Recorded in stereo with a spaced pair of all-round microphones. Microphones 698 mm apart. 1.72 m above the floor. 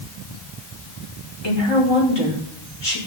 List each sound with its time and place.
1.4 s a woman speaking: 35° left (ahead or behind), 5 m